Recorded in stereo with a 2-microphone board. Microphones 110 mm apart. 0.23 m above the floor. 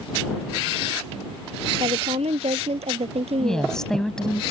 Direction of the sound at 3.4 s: 5° left (ahead or behind).